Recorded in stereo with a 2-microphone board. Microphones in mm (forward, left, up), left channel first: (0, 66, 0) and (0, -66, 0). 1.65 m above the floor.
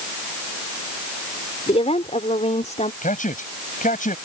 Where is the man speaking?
85° left.